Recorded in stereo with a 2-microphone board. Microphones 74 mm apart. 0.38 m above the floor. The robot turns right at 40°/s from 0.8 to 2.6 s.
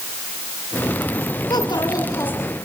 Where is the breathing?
No breathing in this recording.